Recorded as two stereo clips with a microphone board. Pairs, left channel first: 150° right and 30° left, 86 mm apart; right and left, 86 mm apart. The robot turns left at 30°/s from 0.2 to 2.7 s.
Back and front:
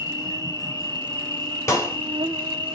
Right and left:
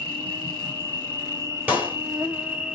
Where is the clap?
155° left, 2.5 m; by 2.0 s 150° left, 2.5 m.